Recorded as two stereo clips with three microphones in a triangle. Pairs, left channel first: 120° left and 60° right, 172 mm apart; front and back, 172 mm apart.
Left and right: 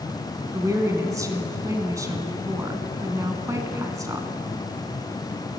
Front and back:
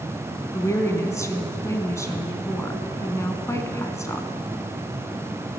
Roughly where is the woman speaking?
Ahead right.